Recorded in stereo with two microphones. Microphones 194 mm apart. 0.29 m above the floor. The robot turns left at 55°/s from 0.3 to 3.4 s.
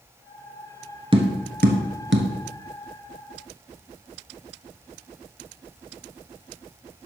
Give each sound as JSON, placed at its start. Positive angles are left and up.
{"t": 1.1, "sound": "tapping", "side_deg": -25, "distance_m": 1.3}